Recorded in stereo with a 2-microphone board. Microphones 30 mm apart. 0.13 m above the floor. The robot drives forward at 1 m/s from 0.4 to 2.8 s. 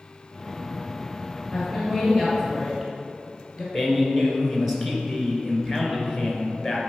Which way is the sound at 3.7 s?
10° right (ahead or behind).